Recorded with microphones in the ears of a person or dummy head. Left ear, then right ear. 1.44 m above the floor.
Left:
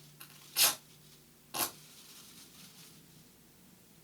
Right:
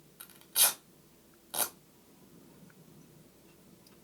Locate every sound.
0.2 s tearing paper: 65° right (ahead or behind), 1.9 m